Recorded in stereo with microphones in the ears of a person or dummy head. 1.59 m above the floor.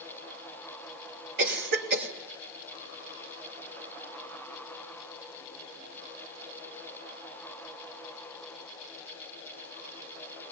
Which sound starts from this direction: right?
A cough, at 1.4 s.